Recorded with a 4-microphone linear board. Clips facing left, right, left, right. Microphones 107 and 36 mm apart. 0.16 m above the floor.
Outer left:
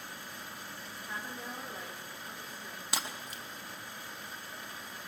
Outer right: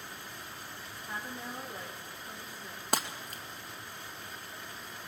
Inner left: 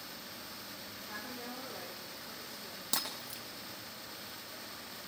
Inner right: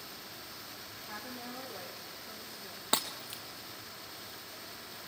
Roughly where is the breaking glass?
Right.